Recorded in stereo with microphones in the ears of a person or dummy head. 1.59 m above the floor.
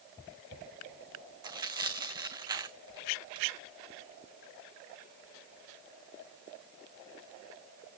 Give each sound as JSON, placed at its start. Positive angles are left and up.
{"t": 1.4, "sound": "tearing paper", "side_deg": -25, "distance_m": 1.2}